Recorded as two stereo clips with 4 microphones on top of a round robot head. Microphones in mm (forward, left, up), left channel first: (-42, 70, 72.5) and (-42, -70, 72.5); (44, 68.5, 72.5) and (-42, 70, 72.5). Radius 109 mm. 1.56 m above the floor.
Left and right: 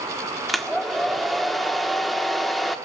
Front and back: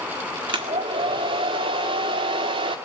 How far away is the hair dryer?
About 1.6 m.